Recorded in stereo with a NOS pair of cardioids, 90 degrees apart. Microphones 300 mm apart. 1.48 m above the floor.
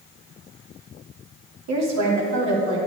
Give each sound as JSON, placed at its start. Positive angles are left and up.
{"t": 1.7, "sound": "a woman speaking", "azimuth_deg": -60, "distance_m": 2.5}